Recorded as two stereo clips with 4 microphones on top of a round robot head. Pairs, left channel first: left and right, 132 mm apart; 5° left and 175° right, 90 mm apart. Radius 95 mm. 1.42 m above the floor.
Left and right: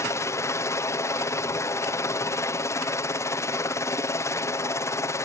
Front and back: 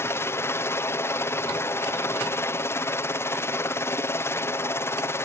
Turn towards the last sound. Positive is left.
turn(degrees=40)